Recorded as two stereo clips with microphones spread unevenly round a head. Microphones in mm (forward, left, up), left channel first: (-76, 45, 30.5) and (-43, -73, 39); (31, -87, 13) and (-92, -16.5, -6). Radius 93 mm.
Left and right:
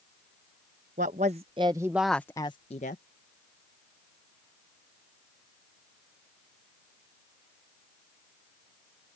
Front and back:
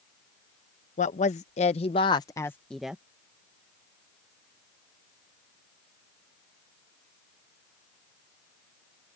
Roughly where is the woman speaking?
Ahead right.